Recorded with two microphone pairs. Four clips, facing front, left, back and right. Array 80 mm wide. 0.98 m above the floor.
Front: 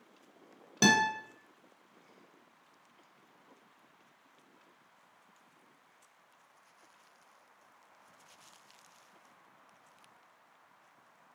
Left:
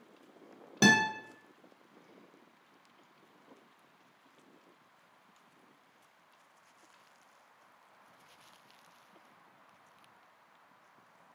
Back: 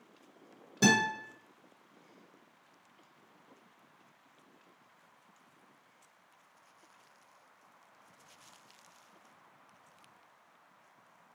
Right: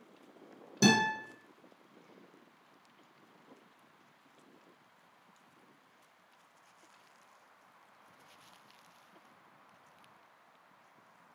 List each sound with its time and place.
0.8 s a guitar: 55° left, 0.9 m